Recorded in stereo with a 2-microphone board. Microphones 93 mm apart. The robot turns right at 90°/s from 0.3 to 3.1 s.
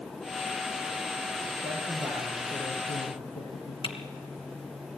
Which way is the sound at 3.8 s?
70° left (ahead or behind).